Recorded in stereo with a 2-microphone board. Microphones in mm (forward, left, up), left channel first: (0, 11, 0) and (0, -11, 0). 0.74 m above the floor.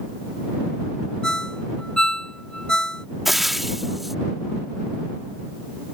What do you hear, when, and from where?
1.2 s a ringtone: 35° left (ahead or behind)
3.2 s frying: 10° right (ahead or behind)